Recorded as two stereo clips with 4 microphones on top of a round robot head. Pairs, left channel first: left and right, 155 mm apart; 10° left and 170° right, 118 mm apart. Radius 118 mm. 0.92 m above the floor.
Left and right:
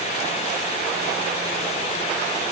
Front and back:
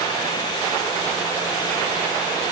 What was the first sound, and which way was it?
Only background noise.